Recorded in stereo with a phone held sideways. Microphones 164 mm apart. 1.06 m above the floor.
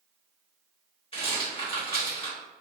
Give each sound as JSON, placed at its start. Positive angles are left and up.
{"t": 1.1, "sound": "a rattle", "side_deg": 35, "distance_m": 1.4}